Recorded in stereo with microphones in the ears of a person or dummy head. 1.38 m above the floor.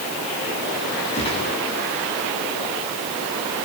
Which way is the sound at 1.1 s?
25° left (ahead or behind).